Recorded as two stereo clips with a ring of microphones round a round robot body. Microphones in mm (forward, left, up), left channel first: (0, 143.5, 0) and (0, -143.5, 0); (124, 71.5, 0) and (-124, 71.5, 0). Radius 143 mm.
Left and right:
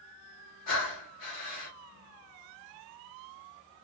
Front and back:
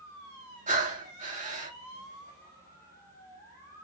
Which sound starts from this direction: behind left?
Breathing, at 0.7 s.